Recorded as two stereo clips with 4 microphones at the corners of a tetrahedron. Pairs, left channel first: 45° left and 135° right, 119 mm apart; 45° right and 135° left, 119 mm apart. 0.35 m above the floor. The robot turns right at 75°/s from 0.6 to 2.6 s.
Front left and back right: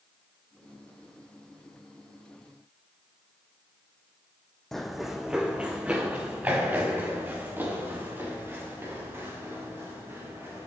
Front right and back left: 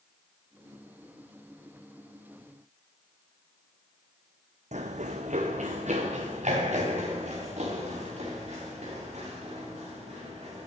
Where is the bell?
No bell in this recording.